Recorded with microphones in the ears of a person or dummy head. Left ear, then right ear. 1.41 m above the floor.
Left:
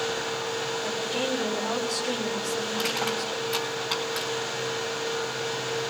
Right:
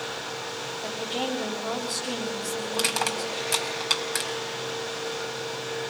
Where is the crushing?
80° right, 4 m.